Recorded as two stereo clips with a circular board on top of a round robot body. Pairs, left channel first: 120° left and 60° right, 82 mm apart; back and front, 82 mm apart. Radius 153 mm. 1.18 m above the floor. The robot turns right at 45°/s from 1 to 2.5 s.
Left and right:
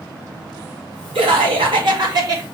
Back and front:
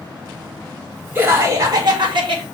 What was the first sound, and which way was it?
Laughter, 65° right.